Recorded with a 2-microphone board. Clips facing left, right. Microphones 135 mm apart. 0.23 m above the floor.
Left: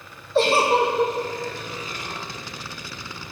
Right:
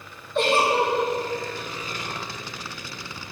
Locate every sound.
0.3 s a giggle: 35° left (ahead or behind), 1.8 m